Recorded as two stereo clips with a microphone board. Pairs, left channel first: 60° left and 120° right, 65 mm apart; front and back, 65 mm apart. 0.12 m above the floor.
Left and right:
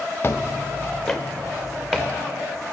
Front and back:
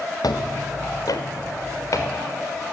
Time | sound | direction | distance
0.2 | footsteps | 5° left | 1.0 m